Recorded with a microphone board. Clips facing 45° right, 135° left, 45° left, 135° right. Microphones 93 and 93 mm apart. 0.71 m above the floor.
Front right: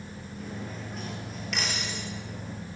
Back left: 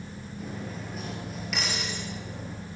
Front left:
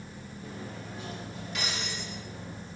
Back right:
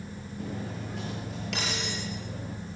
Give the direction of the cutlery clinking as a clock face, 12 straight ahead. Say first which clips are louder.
Back left 1 dB, back right 5 dB; 5 o'clock.